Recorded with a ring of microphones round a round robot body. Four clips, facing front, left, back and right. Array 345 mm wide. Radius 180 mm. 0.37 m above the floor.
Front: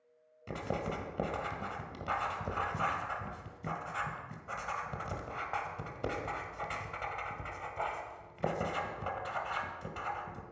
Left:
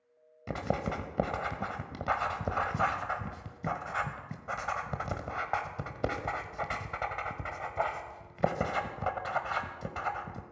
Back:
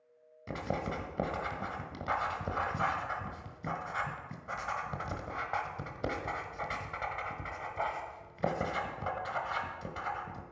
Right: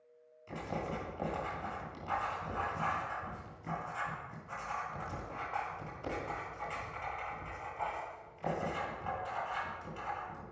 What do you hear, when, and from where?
0.5 s writing: 100° left, 1.7 m